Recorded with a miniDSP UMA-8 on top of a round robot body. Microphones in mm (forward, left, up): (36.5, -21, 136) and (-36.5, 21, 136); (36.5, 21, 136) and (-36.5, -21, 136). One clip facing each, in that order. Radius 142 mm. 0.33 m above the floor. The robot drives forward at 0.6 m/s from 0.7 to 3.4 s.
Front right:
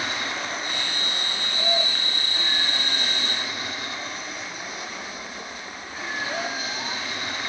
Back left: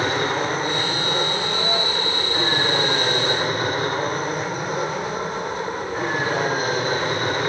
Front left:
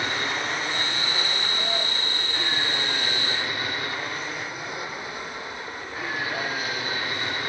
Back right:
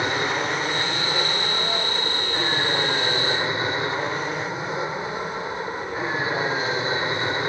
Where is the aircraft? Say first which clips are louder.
Back left 8 dB, back right 4 dB; 150° left; by 7.5 s 155° left.